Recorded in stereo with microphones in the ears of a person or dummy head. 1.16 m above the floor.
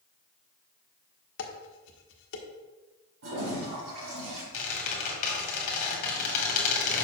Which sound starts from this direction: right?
A toilet flushing, at 3.2 s.